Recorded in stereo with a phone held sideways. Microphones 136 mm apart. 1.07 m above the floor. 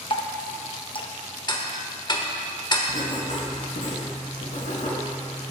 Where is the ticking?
30° left (ahead or behind), 1.0 m.